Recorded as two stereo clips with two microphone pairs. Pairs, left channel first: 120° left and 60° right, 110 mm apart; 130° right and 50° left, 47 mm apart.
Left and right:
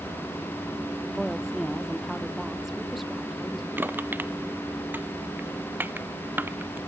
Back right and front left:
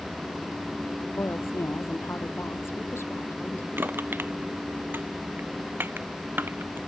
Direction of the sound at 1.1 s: 150° right.